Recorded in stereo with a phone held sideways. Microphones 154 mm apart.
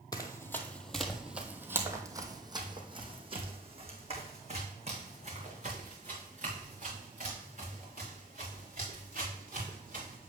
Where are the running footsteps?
25° left (ahead or behind), 1.3 m; by 10.3 s 55° right (ahead or behind), 6 m.